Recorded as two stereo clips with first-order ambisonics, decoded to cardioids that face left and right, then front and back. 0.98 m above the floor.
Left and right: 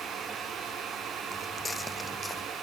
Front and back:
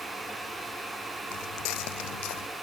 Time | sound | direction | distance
1.3 | footsteps | 10° left | ?